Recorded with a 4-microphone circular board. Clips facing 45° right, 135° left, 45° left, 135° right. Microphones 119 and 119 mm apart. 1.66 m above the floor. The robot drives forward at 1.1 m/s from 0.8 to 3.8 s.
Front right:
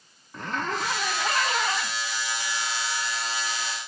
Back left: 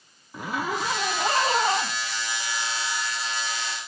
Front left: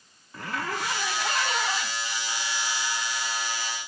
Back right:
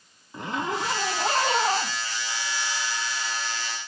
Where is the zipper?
160° right; by 2.9 s straight behind.